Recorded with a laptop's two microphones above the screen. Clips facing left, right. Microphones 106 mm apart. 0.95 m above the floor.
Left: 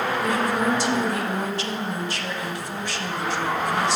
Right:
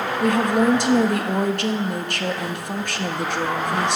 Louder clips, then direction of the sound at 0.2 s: Right 8 dB; 60° right (ahead or behind).